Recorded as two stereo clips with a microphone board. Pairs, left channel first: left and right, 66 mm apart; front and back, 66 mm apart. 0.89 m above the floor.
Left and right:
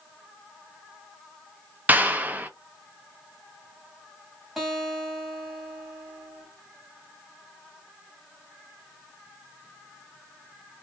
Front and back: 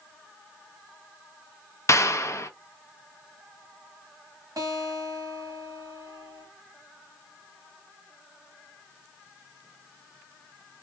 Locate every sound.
1.9 s a clap: 30° right, 0.5 m
4.6 s a guitar: 175° right, 1.5 m